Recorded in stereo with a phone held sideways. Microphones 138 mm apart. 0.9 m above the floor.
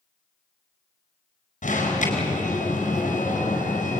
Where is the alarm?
65° left (ahead or behind), 5 m.